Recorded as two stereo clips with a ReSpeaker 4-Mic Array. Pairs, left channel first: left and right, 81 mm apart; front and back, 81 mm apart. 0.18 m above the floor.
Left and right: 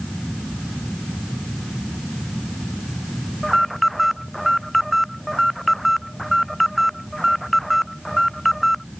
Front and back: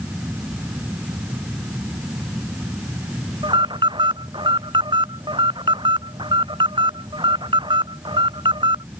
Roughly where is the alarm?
Behind.